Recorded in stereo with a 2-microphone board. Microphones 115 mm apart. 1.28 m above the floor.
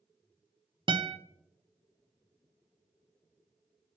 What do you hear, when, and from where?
0.9 s a guitar: 45° right (ahead or behind), 0.5 m